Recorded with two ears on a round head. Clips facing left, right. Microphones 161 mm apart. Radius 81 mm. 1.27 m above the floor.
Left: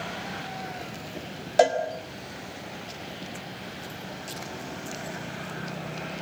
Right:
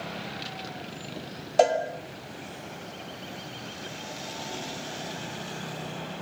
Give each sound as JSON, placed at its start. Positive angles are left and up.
{"t": 1.6, "sound": "a cowbell", "side_deg": 5, "distance_m": 3.0}